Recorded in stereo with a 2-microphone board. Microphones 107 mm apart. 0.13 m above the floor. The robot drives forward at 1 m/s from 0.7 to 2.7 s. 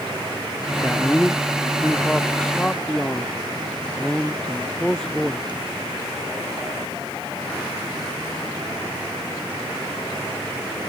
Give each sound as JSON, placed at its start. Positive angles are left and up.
{"t": 0.7, "sound": "a man speaking", "side_deg": 10}